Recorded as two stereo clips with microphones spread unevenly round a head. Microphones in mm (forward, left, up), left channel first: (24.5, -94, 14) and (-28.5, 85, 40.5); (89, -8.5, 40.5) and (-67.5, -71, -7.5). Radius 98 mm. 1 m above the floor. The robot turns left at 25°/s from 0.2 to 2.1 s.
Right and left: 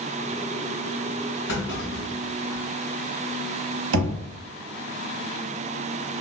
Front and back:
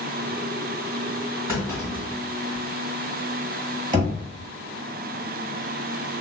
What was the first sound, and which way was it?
A clunk, 85° right.